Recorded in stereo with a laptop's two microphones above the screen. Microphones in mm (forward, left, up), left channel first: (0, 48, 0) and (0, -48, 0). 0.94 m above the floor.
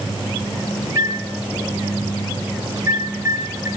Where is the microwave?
35° right (ahead or behind), 2.5 m.